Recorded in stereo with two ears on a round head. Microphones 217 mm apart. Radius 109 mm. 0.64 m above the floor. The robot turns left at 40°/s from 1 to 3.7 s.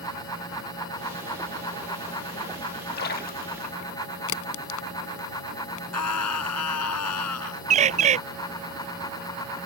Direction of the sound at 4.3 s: 65° left (ahead or behind).